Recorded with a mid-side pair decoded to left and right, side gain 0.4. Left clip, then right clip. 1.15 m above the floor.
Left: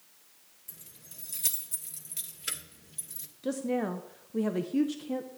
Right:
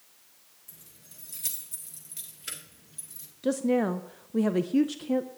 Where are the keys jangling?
30° left, 1.8 m.